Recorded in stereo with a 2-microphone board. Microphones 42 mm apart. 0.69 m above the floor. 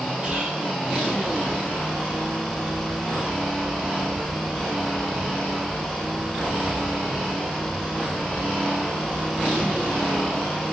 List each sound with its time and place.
0.2 s whispering: 20° right (ahead or behind), 1.0 m